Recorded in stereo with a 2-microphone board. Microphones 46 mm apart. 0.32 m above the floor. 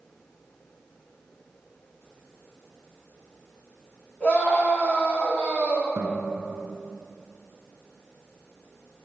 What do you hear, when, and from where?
4.2 s a scream: 25° left (ahead or behind), 2.5 m
6.0 s a guitar: 75° right (ahead or behind), 1.5 m